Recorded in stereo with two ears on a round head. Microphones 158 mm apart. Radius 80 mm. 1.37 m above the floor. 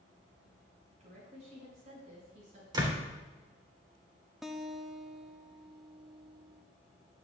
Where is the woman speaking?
40° right (ahead or behind), 5 m.